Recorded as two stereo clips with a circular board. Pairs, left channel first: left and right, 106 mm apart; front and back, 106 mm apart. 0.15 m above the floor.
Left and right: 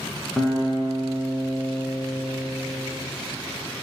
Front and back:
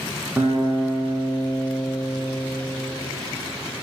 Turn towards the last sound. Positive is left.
turn(degrees=-175)